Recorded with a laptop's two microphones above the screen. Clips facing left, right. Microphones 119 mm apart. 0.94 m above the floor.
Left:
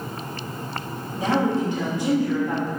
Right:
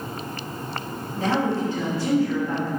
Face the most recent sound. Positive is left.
turn(degrees=20)  # may be behind; listen again after turning